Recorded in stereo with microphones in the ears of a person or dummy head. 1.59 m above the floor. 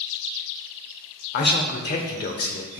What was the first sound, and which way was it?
A man speaking, 45° left (ahead or behind).